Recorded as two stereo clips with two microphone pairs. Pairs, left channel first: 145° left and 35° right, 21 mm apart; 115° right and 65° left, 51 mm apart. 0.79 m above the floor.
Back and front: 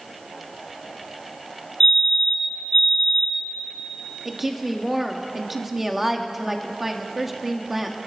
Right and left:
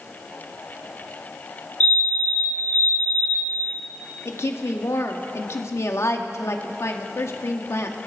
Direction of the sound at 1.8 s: 165° right.